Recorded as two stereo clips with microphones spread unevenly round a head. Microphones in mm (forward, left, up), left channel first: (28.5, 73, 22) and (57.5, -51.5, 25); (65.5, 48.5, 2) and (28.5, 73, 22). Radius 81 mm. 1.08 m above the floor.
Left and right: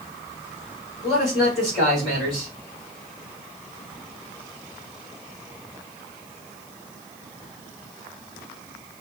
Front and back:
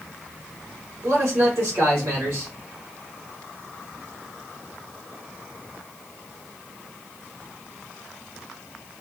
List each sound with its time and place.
1.0 s a man speaking: 170° right, 2 m